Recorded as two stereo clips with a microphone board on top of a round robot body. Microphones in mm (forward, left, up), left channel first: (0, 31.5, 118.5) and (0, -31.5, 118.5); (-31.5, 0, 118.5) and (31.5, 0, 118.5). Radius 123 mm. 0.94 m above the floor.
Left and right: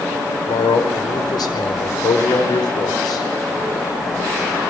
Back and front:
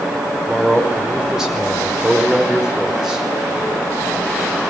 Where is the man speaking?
80° left, 5 m.